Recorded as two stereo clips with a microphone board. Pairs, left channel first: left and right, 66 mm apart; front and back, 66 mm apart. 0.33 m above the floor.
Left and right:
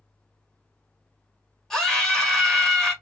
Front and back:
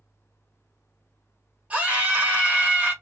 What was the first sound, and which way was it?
A scream, 155° left.